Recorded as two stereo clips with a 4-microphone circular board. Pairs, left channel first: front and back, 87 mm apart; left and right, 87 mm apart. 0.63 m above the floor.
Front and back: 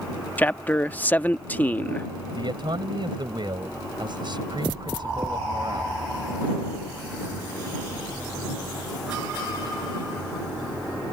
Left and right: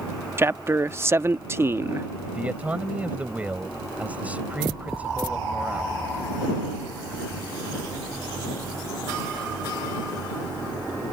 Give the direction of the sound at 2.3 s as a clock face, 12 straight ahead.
5 o'clock.